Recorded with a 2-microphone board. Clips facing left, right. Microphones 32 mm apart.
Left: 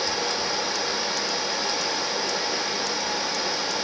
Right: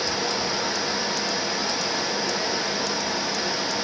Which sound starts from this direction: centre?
Running water, at 0.0 s.